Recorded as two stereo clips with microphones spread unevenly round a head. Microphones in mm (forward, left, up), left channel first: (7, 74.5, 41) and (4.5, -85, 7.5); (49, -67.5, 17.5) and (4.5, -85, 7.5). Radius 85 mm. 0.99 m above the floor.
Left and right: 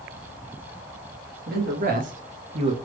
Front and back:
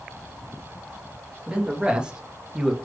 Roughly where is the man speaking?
Right.